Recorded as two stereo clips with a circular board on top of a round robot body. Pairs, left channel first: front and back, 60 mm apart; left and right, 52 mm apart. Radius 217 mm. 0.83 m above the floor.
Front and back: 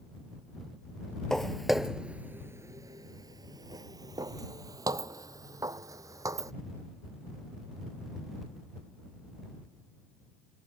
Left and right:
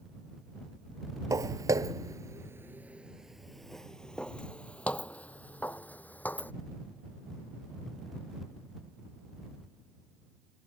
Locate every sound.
1.3 s footsteps: 85° right; by 6.5 s 150° left